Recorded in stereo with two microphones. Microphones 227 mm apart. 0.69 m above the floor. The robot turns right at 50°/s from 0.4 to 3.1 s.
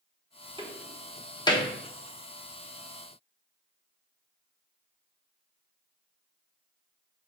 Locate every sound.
0.6 s a door slam: 20° right (ahead or behind), 0.9 m; by 1.7 s 30° left (ahead or behind), 0.9 m